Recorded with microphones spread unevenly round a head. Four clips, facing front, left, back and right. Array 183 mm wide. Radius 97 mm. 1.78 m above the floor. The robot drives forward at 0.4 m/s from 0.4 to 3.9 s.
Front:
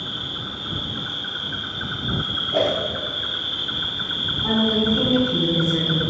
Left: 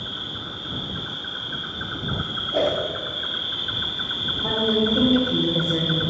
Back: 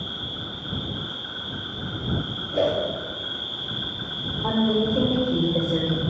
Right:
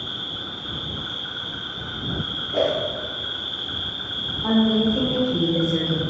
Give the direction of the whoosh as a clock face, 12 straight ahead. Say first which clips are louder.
Even, front 1 dB; 11 o'clock.